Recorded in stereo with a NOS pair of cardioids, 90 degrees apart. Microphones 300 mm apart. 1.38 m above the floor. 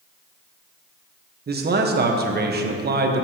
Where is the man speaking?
30° right, 1.2 m.